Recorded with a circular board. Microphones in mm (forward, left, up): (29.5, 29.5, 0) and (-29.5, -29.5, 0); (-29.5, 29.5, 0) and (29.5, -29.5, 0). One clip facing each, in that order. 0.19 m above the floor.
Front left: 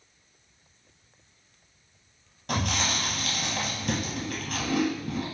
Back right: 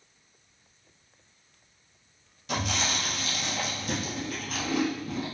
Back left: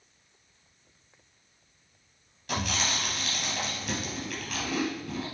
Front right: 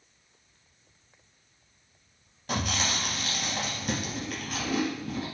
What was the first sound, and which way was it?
Chewing, 5° left.